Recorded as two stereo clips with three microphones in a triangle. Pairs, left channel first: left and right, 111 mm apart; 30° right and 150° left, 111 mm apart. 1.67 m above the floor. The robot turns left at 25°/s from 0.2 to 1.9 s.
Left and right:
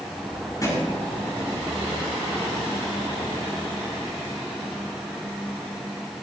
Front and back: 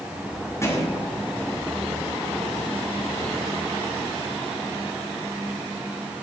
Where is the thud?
30° left, 6 m; by 0.9 s 25° left, 6 m.